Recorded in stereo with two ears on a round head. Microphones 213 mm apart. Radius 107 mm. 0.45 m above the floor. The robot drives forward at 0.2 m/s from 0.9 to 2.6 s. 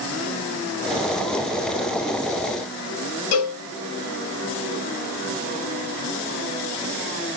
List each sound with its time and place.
3.3 s a cowbell: 70° left (ahead or behind), 1.0 m